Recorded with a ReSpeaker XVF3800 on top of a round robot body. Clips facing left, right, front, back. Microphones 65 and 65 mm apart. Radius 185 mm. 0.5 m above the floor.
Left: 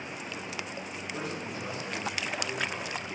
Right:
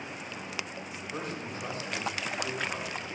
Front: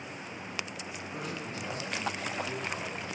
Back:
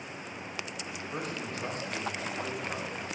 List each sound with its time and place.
1.1 s a man speaking: 135° right, 3 m